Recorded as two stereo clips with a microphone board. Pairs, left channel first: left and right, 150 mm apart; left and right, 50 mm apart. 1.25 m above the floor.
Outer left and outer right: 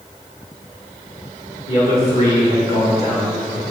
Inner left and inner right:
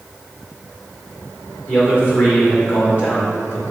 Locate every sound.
1.7 s a man speaking: 45° left (ahead or behind), 1.7 m